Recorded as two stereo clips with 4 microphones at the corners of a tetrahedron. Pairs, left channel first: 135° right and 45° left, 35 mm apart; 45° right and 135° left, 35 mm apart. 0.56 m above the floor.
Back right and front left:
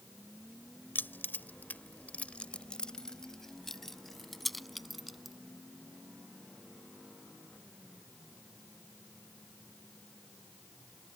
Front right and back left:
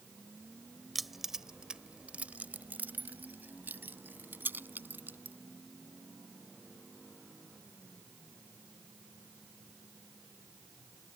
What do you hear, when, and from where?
0.9 s keys jangling: 135° right; by 5.3 s 135° left